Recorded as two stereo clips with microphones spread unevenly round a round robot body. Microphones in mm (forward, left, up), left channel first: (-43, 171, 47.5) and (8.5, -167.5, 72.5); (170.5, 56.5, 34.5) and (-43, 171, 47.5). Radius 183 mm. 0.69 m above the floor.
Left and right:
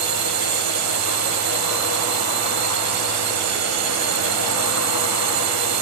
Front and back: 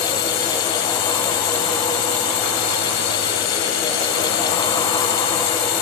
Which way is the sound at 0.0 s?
35° right.